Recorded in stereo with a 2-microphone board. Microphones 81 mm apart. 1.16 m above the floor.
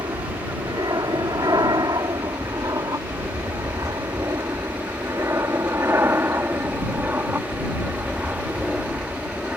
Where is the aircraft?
60° right (ahead or behind); by 9.6 s 10° right (ahead or behind).